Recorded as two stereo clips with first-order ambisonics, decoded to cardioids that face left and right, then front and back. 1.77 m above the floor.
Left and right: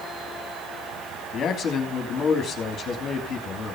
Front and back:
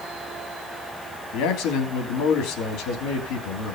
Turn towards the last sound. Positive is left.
turn(degrees=25)